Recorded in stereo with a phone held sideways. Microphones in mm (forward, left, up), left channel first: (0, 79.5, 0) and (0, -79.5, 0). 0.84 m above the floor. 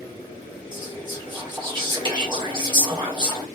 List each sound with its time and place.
0.7 s whispering: 30° right (ahead or behind), 1.3 m